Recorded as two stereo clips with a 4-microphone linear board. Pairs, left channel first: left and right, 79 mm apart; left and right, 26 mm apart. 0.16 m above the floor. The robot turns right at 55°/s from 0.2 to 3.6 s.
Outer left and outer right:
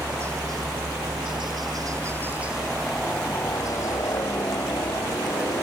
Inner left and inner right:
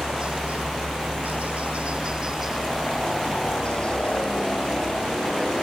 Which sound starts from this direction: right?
A helicopter, at 0.0 s.